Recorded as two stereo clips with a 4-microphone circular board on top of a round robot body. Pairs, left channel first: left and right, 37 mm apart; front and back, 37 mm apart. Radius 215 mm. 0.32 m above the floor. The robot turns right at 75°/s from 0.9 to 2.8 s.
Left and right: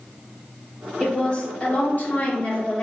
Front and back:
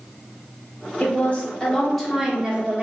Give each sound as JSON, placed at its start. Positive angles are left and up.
{"t": 1.0, "sound": "a woman speaking", "azimuth_deg": 20, "distance_m": 1.4}